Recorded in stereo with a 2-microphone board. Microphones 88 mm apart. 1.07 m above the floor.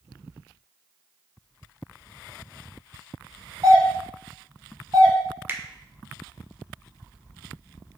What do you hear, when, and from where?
3.6 s a doorbell: 45° right (ahead or behind), 1.5 m
5.5 s a finger snap: 25° right (ahead or behind), 0.5 m